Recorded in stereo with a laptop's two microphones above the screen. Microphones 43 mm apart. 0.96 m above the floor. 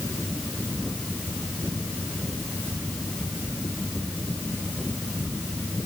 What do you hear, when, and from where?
Only background noise.